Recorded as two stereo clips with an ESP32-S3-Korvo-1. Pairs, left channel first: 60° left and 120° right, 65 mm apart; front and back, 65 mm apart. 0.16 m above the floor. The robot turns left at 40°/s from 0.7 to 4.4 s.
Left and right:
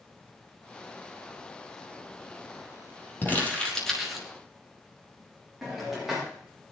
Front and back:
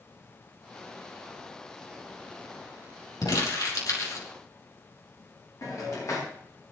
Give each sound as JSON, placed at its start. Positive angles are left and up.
{"t": 3.2, "sound": "crumpling", "azimuth_deg": 5, "distance_m": 5.0}
{"t": 5.6, "sound": "a hiss", "azimuth_deg": -35, "distance_m": 9.5}